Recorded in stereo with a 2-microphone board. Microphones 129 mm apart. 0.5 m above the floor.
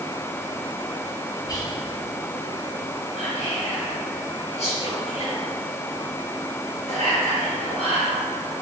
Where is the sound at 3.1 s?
55° left (ahead or behind), 1.9 m.